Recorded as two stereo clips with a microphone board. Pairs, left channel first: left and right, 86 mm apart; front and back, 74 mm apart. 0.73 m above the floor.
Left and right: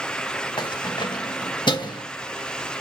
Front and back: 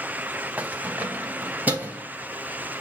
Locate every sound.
0.6 s keys jangling: 110° left, 1.7 m; by 2.0 s 115° left, 2.5 m